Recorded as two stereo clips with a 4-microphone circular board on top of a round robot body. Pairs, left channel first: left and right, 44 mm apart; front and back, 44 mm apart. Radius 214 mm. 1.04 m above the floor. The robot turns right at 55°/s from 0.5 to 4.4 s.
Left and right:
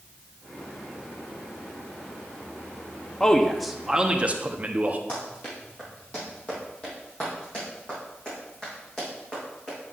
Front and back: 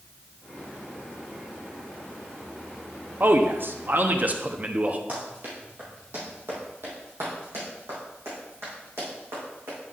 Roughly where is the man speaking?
Behind.